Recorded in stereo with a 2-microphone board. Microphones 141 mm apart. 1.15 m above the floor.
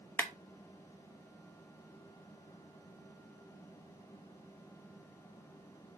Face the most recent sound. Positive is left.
turn(degrees=15)  # may be behind; listen again after turning